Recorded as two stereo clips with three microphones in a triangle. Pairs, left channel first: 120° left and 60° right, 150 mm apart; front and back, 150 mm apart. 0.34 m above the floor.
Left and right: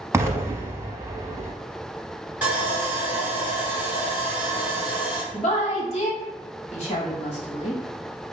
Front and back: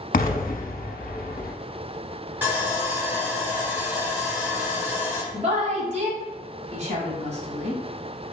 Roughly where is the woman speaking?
Behind left.